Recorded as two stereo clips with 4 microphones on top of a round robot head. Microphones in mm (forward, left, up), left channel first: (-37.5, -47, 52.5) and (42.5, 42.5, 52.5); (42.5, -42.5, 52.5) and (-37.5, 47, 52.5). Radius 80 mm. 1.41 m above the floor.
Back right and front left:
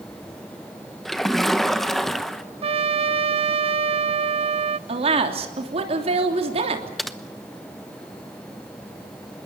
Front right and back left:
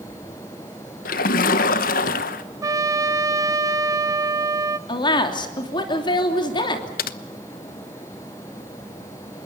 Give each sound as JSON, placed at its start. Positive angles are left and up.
{"t": 1.1, "sound": "a splash", "azimuth_deg": -45, "distance_m": 1.1}
{"t": 2.6, "sound": "a trumpet", "azimuth_deg": 75, "distance_m": 0.7}
{"t": 4.9, "sound": "a woman speaking", "azimuth_deg": 5, "distance_m": 3.0}
{"t": 7.0, "sound": "typing on a keyboard", "azimuth_deg": -40, "distance_m": 0.8}